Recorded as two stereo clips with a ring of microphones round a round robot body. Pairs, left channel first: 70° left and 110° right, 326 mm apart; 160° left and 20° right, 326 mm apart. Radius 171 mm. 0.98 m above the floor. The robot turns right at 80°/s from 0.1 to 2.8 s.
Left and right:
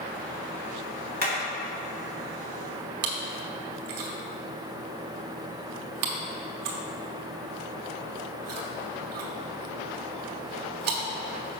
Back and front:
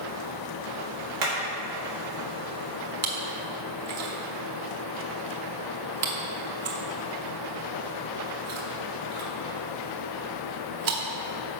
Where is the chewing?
65° right, 1.2 m.